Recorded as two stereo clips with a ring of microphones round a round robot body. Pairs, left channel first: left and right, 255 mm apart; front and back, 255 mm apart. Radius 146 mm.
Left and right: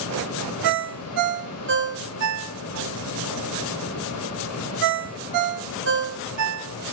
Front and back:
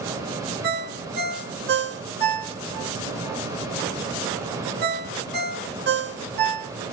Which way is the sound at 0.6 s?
130° right.